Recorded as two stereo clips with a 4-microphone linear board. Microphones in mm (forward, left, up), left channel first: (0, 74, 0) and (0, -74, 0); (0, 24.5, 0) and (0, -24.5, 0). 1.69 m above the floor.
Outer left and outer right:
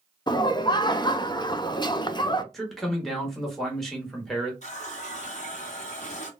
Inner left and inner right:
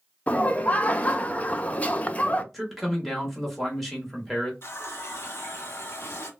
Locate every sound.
0.3 s laughter: 30° left (ahead or behind), 0.5 m
2.5 s a man speaking: centre (ahead or behind), 1.4 m
4.6 s a running tap: 50° left (ahead or behind), 1.1 m